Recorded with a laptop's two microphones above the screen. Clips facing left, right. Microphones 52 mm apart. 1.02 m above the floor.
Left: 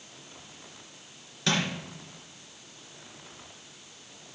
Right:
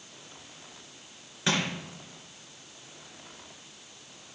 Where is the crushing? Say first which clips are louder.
Even; 20° right (ahead or behind), 3 m.